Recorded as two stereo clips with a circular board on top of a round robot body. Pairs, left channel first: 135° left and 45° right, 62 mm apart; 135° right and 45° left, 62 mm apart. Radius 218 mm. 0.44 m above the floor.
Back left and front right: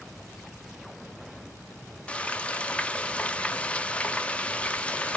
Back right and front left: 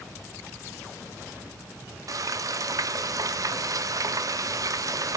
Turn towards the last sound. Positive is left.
turn(degrees=65)